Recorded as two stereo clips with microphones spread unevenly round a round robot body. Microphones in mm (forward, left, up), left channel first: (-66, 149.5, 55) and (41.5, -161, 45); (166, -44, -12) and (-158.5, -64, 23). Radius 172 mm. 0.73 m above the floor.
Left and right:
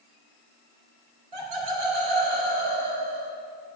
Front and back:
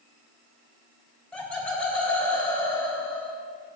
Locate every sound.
1.3 s laughter: 85° right, 3 m